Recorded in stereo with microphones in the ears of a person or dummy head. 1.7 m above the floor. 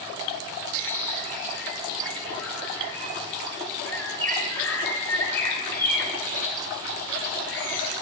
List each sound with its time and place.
0.7 s a bird: 10° left (ahead or behind), 8.5 m